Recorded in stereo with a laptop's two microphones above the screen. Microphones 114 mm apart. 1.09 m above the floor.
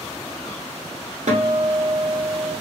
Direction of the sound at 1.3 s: 75° right (ahead or behind).